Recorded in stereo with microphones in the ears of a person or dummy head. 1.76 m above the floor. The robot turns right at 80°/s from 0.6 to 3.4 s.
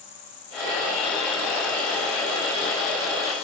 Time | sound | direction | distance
0.0 | an insect | 150° left | 4.5 m